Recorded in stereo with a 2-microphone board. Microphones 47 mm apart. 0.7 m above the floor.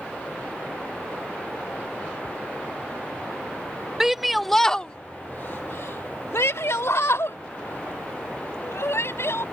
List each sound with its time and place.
4.0 s a shout: 10° right (ahead or behind); by 9.4 s 60° left (ahead or behind)